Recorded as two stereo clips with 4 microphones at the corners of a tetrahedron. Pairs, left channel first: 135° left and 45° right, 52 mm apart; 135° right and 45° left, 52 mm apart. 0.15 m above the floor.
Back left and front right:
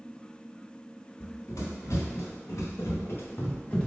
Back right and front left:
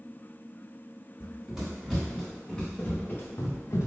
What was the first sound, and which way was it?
Running footsteps, 120° left.